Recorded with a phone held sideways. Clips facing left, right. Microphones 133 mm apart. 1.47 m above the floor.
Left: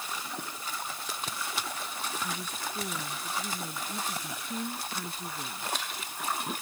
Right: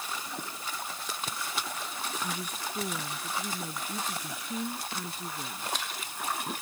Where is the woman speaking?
15° right (ahead or behind); by 5.7 s 5° right (ahead or behind).